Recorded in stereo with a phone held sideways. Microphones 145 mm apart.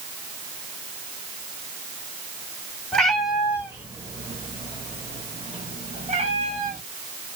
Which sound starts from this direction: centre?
A cat meowing, at 2.9 s.